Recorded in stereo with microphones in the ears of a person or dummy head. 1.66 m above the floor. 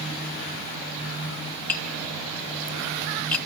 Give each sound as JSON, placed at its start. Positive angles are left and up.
{"t": 1.7, "sound": "tapping", "side_deg": 5, "distance_m": 1.8}